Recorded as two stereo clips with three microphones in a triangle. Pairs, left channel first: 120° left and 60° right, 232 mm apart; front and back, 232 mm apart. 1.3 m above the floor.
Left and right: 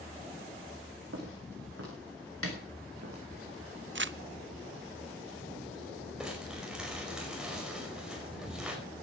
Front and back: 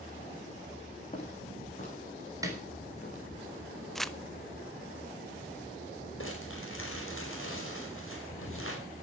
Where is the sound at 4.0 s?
90° right, 0.6 m.